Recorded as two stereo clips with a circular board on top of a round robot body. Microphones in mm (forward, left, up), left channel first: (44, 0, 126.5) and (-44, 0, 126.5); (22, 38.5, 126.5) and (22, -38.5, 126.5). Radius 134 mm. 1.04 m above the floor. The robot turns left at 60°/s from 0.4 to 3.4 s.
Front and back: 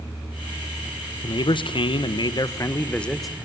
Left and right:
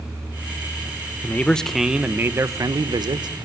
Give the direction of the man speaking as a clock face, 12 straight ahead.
11 o'clock.